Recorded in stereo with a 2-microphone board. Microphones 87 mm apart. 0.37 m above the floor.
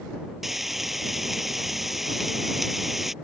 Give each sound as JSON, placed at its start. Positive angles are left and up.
{"t": 0.4, "sound": "frying", "side_deg": 0}